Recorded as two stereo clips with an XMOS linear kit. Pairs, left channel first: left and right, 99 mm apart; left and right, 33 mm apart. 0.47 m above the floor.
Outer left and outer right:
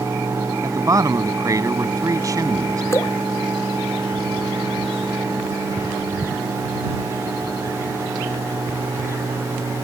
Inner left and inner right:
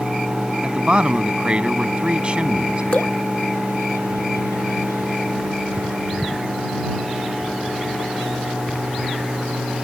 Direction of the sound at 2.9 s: 30° left (ahead or behind).